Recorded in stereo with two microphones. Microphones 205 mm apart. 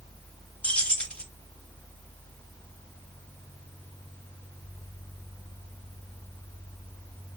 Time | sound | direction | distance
0.6 | keys jangling | 5° left (ahead or behind) | 0.7 m